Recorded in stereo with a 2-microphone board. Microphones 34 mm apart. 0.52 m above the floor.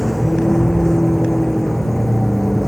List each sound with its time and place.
0.0 s a vehicle: 15° left (ahead or behind); by 2.7 s 5° left (ahead or behind)